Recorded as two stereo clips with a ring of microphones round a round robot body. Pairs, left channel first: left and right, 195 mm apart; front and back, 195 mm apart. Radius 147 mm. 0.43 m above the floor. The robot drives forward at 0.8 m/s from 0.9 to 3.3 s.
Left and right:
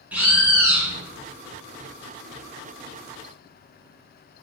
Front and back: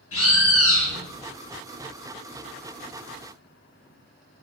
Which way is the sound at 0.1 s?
5° right.